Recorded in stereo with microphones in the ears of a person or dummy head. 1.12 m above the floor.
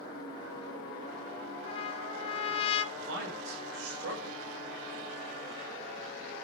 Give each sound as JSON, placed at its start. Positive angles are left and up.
{"t": 1.6, "sound": "a trumpet", "side_deg": 30, "distance_m": 1.1}
{"t": 3.0, "sound": "a man speaking", "side_deg": -75, "distance_m": 3.0}